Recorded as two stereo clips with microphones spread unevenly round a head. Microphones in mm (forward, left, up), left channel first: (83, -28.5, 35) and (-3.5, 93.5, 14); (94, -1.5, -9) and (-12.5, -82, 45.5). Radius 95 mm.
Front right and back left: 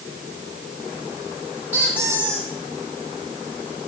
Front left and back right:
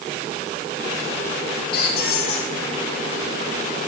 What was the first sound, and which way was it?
A squeak, 45° left.